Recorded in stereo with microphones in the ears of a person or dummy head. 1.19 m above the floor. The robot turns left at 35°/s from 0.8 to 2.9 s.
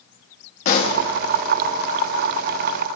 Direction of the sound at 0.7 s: 50° left (ahead or behind).